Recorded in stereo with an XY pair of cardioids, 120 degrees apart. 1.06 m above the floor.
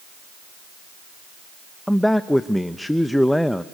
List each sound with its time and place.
1.9 s a man speaking: 5° left, 0.7 m